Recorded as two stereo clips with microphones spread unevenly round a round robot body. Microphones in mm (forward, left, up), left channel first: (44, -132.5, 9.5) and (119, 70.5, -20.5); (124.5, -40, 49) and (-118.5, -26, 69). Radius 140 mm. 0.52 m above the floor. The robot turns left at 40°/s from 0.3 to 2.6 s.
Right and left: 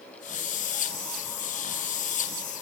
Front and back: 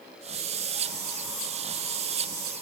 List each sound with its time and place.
Only background noise.